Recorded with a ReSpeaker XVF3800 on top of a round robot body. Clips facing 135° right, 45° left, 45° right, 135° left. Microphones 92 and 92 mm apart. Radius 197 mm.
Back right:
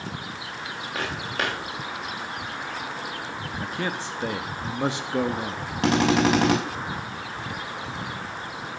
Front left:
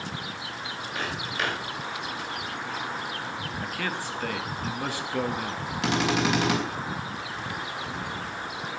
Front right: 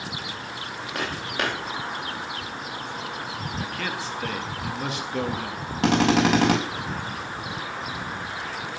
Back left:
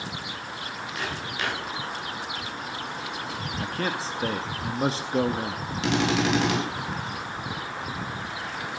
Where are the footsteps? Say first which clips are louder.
Back right 2 dB, front right 4 dB; 85° right, 7.5 m.